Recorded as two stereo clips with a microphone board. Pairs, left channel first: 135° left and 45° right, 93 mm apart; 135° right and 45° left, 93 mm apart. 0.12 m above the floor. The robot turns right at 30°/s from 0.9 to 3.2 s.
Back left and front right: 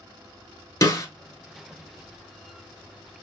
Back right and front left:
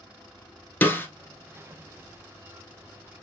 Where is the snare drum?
165° left, 1.0 m; by 1.1 s 170° left, 1.0 m.